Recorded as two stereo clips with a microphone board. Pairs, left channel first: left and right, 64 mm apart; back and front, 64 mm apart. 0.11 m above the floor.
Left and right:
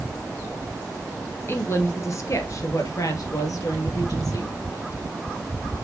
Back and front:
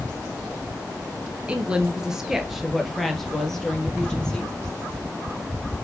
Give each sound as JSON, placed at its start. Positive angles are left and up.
{"t": 1.5, "sound": "a woman speaking", "azimuth_deg": 60, "distance_m": 1.4}